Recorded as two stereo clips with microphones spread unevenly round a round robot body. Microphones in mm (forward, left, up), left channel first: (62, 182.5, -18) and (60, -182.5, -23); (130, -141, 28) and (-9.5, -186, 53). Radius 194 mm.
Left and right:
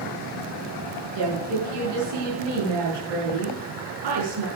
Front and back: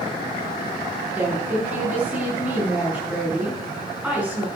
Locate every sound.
1.1 s a woman speaking: 80° right, 6.5 m